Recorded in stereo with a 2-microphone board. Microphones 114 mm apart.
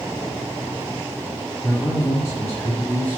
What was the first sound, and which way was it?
A man speaking, 25° left (ahead or behind).